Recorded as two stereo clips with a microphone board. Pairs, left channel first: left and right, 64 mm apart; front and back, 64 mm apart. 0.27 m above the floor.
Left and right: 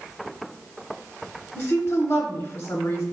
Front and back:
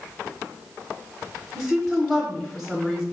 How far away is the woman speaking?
About 1.0 m.